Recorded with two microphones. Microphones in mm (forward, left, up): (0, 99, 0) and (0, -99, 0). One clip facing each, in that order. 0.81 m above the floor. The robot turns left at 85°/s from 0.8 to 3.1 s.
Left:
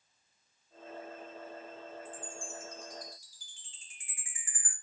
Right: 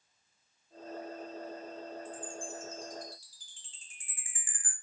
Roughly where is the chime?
Left.